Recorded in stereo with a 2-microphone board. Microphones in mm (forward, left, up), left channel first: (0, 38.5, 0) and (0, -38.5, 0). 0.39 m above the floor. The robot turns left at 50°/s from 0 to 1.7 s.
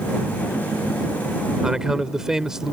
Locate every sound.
1.6 s a man speaking: 10° right (ahead or behind); by 2.7 s 5° right (ahead or behind)